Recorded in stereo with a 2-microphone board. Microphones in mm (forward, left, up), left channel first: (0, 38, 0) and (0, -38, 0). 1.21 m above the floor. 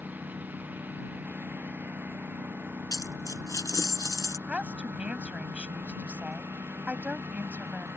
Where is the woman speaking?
15° right (ahead or behind).